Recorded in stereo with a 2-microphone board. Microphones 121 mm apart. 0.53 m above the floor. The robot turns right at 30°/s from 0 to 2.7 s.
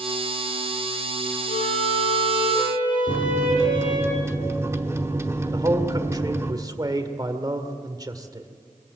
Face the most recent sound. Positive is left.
turn(degrees=-30)  # may be behind; listen again after turning